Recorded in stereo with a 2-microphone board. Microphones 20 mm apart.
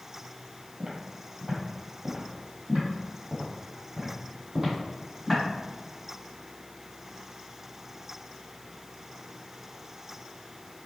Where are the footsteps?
60° right (ahead or behind), 1.7 m; by 5.4 s 35° right (ahead or behind), 3.5 m.